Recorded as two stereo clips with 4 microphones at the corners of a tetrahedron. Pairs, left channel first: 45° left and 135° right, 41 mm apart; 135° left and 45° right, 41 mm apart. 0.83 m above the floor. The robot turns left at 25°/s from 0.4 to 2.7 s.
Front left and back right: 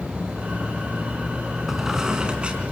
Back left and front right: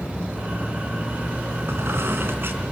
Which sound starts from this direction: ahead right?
A squeak, at 1.7 s.